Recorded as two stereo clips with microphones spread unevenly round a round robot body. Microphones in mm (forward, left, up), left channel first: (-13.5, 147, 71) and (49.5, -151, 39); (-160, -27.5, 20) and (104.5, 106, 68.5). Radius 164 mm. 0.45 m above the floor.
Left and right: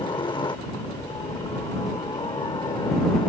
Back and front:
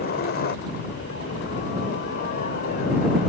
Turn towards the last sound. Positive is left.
turn(degrees=175)